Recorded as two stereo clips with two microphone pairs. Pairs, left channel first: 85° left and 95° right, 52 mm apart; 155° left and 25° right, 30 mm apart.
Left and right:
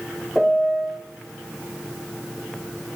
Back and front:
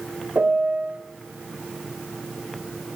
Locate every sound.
0.3 s a piano: 5° right, 1.4 m